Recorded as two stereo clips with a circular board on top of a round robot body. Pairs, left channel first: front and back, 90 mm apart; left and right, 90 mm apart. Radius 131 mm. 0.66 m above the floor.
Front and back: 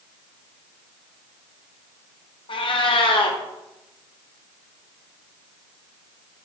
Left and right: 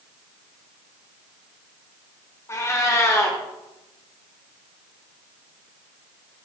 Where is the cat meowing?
30° left, 1.2 m.